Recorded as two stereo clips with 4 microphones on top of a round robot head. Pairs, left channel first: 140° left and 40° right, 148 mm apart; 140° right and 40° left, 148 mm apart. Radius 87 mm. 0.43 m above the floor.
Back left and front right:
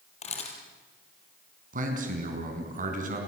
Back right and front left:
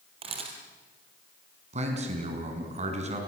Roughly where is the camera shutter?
Left.